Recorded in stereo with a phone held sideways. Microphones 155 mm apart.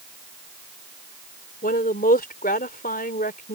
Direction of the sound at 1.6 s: 90° left.